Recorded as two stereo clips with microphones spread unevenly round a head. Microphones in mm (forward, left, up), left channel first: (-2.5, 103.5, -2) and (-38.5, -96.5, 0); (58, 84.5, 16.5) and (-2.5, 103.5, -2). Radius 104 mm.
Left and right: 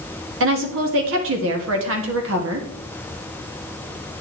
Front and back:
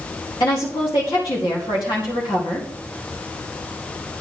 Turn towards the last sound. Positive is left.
turn(degrees=-75)